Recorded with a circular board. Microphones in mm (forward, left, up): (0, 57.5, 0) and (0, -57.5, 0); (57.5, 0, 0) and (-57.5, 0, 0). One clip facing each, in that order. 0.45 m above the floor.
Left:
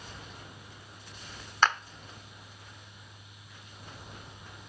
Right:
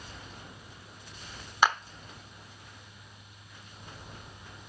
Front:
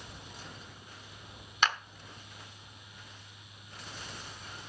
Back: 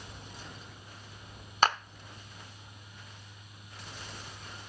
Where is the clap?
165° right, 0.9 m.